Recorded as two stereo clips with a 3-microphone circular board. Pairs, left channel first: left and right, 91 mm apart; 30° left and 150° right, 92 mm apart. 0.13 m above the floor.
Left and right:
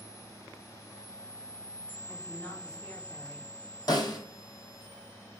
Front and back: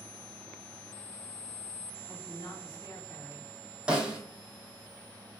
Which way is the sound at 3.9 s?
135° left.